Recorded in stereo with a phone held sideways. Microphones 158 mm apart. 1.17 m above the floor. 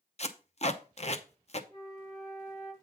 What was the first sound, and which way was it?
Tape being pulled, 45° left (ahead or behind).